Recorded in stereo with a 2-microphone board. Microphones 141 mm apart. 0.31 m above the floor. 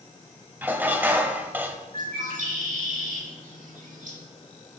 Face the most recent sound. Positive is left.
turn(degrees=-65)  # may be behind; listen again after turning